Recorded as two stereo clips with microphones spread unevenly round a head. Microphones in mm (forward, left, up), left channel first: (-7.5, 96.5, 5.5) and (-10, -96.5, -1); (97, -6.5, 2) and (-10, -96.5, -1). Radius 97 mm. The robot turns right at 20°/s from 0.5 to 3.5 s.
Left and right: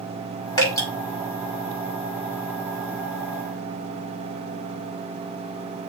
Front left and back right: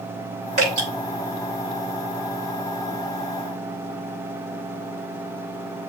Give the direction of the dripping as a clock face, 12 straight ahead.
7 o'clock.